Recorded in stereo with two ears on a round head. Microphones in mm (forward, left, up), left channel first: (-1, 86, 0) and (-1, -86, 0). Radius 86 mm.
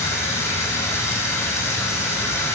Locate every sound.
0.0 s running water: 15° left (ahead or behind), 3.5 m